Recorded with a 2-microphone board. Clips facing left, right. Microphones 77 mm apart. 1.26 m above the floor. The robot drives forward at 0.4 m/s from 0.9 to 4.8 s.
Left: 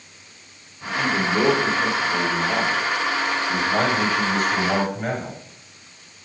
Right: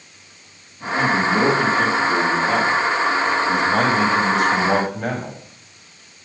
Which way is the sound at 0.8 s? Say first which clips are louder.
Right 4 dB; 60° right (ahead or behind).